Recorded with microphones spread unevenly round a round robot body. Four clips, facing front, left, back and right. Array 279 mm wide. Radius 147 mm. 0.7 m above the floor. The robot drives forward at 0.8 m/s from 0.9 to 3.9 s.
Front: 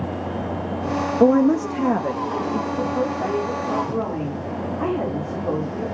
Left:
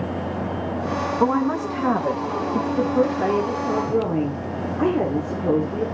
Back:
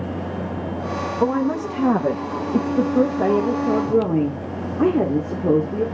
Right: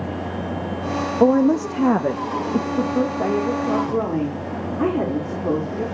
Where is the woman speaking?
25° right, 0.7 m; by 5.8 s 175° right, 1.8 m.